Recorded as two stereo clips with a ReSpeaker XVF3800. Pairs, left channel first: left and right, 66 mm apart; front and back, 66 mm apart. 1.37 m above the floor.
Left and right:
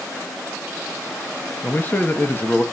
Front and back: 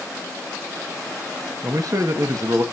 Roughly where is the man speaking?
Behind left.